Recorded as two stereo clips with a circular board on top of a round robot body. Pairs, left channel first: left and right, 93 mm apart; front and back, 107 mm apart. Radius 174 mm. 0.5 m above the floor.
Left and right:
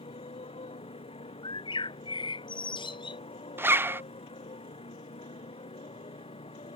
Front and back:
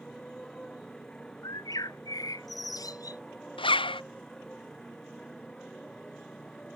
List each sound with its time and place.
0.0 s a motorcycle: 85° left
1.4 s a bird: 60° left
3.6 s a zipper: 25° right